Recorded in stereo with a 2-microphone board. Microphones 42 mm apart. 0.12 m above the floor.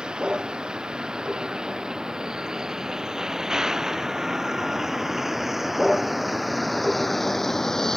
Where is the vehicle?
20° right (ahead or behind); by 8.0 s 15° left (ahead or behind).